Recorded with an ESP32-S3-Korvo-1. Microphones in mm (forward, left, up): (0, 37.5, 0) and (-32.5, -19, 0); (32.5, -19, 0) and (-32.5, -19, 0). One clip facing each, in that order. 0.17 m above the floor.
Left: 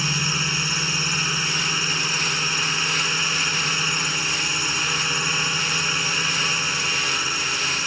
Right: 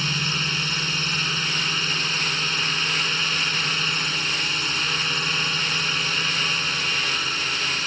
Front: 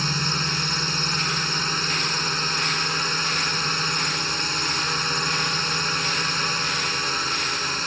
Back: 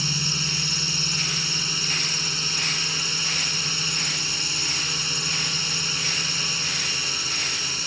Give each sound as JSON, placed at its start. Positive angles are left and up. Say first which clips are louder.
{"t": 0.0, "sound": "a drone", "louder": "left 1 dB, front 4 dB", "azimuth_deg": -15}